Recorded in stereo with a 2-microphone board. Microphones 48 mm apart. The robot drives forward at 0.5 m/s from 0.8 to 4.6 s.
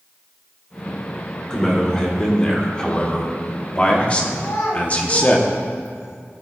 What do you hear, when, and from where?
1.5 s a man speaking: 15° left (ahead or behind), 2 m; by 5.4 s 30° left (ahead or behind), 1.0 m
4.4 s a child speaking: 65° left (ahead or behind), 2 m; by 6.2 s 70° left (ahead or behind), 2 m